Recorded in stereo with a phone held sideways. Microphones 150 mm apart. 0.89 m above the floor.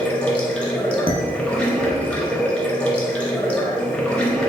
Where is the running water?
5° left (ahead or behind), 0.7 m.